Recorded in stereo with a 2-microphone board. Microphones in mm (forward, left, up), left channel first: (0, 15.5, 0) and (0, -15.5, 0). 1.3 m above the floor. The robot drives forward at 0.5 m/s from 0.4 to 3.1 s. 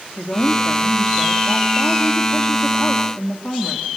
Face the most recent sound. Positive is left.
turn(degrees=70)  # may be behind; listen again after turning